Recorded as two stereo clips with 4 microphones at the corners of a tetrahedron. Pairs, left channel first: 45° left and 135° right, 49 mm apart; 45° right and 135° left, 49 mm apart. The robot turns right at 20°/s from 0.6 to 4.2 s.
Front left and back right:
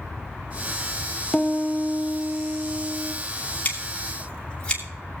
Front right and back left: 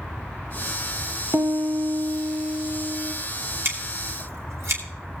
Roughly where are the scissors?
Left.